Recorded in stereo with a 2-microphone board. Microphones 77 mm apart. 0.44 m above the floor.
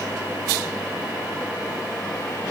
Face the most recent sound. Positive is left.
No sound to turn to.